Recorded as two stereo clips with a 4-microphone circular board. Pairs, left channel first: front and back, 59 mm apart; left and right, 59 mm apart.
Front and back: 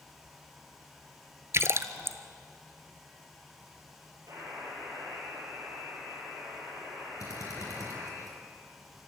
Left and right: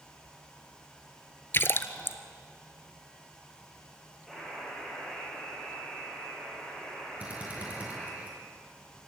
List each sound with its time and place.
1.5 s a splash: 140° left, 0.9 m
4.3 s a buzzer: straight behind, 10 m
7.2 s a drill: 25° right, 6 m